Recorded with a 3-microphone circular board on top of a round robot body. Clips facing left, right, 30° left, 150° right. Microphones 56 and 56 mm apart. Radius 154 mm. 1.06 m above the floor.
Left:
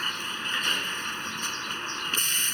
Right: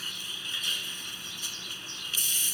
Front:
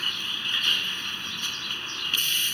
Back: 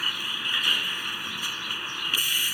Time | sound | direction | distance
0.0 | a vehicle | 130° left | ?